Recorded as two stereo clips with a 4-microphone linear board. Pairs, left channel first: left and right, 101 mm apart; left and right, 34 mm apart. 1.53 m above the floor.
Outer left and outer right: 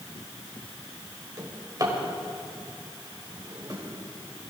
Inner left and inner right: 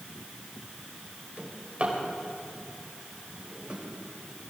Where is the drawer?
40° right (ahead or behind), 3.5 m.